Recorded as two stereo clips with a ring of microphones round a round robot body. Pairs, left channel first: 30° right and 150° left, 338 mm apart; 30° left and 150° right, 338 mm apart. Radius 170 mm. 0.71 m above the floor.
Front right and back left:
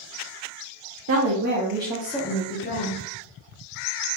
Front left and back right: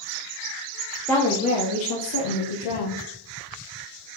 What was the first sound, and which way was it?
A woman speaking, 115° left.